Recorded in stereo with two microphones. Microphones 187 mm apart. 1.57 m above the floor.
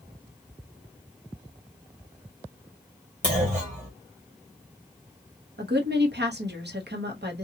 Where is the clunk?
40° right (ahead or behind), 1.7 m.